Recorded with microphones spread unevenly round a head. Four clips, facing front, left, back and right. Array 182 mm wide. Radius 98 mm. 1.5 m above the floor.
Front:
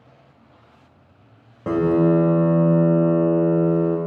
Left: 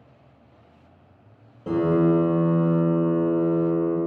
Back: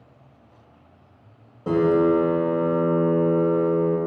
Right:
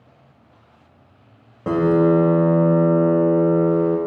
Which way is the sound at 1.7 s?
60° right.